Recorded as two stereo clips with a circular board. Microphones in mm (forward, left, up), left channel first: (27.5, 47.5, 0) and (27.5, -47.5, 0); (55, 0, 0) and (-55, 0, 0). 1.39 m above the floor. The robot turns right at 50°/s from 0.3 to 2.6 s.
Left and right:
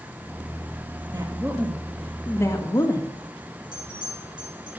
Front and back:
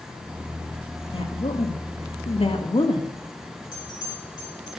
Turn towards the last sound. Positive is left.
turn(degrees=-50)